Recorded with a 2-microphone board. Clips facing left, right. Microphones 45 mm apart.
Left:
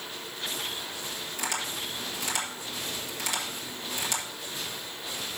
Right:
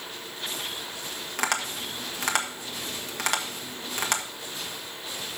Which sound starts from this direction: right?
Tapping, at 1.4 s.